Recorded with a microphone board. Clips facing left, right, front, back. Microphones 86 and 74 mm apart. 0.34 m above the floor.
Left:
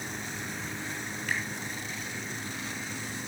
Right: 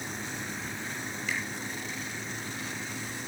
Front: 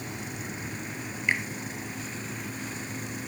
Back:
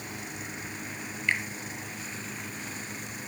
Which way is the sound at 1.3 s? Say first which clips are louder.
Left 2 dB, front 1 dB; 65° left.